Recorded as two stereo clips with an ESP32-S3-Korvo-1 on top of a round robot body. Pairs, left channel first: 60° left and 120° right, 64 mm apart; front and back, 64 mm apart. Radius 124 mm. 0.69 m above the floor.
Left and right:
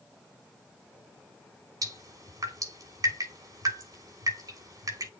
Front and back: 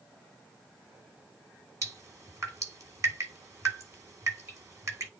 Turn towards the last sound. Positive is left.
turn(degrees=-140)